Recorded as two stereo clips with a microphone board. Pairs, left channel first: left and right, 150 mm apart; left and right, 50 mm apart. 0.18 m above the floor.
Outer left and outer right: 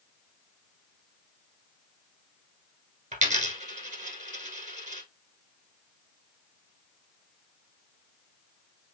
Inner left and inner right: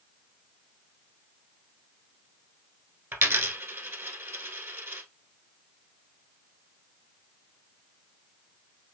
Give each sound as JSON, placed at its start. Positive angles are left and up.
{"t": 3.1, "sound": "a dropped coin", "side_deg": -55, "distance_m": 1.1}